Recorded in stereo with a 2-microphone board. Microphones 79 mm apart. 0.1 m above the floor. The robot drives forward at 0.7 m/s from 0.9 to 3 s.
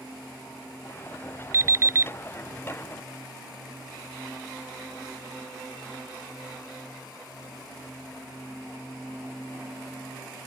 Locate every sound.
1.5 s an alarm clock: 35° right (ahead or behind)